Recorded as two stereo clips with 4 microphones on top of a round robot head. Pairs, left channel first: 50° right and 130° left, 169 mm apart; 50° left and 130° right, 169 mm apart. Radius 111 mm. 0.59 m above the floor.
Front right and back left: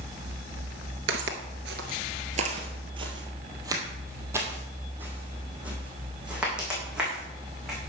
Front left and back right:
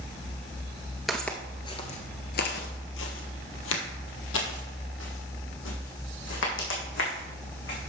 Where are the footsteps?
145° left, 0.8 m; by 7.8 s 40° left, 3.5 m.